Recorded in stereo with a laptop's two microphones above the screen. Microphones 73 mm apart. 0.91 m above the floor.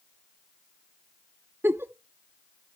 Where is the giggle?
30° right (ahead or behind), 0.6 m.